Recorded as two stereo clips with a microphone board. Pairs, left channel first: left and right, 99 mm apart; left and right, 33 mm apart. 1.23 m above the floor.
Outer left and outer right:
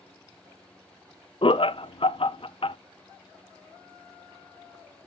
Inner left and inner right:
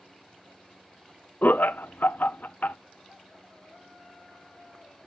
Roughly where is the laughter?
Left.